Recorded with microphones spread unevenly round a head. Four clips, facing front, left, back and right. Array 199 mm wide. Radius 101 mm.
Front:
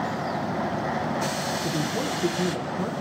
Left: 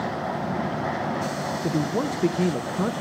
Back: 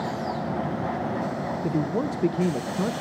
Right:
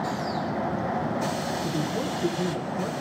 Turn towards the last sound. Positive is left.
turn(degrees=125)